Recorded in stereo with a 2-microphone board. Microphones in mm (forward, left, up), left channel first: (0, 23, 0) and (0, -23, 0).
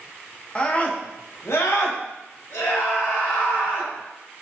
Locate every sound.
0.6 s a scream: 25° left (ahead or behind), 0.9 m; by 3.9 s 80° left, 2 m